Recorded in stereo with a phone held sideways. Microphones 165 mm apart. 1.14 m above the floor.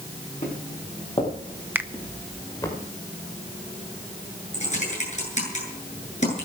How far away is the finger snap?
About 0.8 m.